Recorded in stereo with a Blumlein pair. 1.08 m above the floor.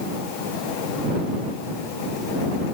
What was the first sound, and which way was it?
Only background noise.